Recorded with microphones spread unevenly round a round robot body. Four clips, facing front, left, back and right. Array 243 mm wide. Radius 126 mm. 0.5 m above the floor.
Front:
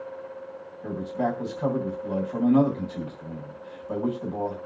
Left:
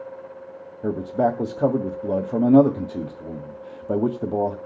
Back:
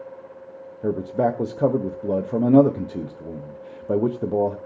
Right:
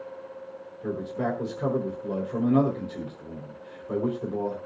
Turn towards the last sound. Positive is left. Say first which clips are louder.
# left 7 dB, back 6 dB
turn(degrees=145)